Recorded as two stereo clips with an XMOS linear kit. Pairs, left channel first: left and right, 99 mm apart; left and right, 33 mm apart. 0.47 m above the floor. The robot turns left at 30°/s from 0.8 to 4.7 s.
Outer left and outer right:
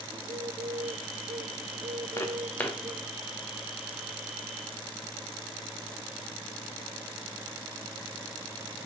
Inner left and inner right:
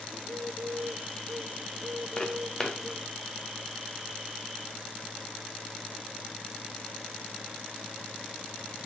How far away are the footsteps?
About 3 m.